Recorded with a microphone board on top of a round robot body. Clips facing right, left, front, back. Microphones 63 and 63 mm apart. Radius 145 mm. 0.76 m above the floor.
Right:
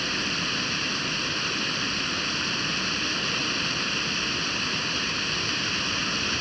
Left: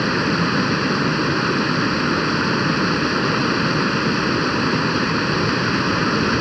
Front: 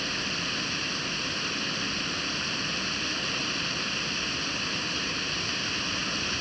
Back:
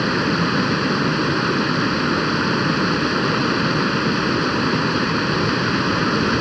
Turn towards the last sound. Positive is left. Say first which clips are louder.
# left 11 dB, back 14 dB
turn(degrees=140)